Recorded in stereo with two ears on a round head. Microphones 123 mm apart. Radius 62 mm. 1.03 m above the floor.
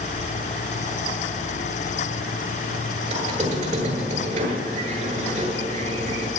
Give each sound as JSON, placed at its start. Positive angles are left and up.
{"t": 3.1, "sound": "a squeak", "side_deg": -55, "distance_m": 9.0}